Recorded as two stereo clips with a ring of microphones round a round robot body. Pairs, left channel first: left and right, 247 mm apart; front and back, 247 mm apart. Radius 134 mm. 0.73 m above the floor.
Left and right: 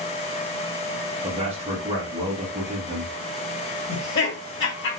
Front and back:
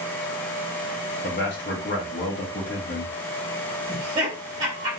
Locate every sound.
1.2 s a man speaking: 30° right, 1.6 m
3.9 s laughter: 115° left, 1.7 m